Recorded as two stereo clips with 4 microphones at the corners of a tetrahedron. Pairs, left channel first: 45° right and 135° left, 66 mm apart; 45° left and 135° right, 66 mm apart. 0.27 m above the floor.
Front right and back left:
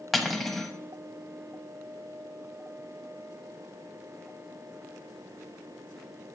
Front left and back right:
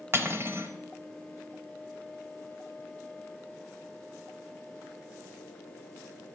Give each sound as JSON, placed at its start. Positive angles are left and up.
{"t": 0.1, "sound": "cutlery clinking", "azimuth_deg": -135, "distance_m": 0.7}